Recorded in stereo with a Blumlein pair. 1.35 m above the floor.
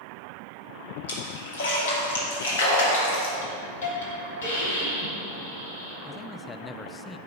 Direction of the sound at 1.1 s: 60° left.